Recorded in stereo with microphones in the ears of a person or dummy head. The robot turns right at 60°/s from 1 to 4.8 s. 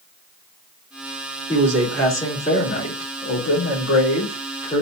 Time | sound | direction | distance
1.5 | a man speaking | 20° right | 3 m